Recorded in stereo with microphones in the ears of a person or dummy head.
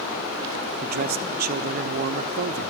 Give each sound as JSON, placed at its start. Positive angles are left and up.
{"t": 0.8, "sound": "a man speaking", "side_deg": -45, "distance_m": 0.7}